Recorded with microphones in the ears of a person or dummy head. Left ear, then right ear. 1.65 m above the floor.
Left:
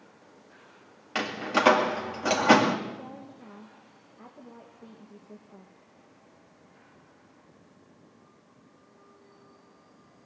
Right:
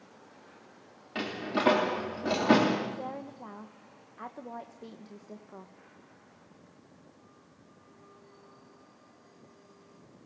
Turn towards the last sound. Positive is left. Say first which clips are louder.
# right 4 dB
turn(degrees=-65)  # may be behind; listen again after turning